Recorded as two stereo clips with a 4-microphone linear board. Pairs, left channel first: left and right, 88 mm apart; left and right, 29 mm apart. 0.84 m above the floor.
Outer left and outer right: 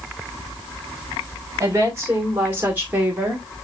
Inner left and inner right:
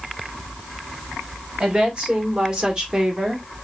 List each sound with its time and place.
1.6 s a woman speaking: 30° right (ahead or behind), 2.5 m; by 3.5 s 15° right (ahead or behind), 1.6 m